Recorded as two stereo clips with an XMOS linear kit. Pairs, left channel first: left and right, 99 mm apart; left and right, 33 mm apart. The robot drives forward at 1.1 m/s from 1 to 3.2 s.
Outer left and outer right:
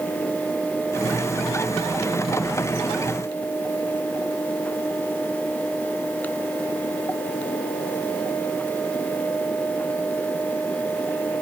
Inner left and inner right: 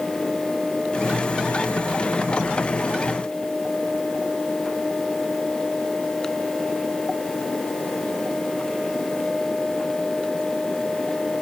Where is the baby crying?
I don't hear a baby crying.